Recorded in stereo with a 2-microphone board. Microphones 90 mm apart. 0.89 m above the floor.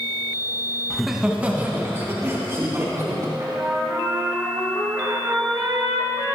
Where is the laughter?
5° left (ahead or behind), 1.0 m; by 3.3 s 35° right (ahead or behind), 3.5 m.